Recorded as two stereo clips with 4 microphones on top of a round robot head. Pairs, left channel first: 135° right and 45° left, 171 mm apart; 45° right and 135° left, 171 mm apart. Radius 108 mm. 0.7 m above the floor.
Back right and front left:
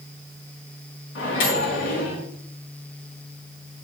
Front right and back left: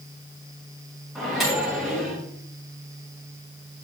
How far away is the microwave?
About 5 m.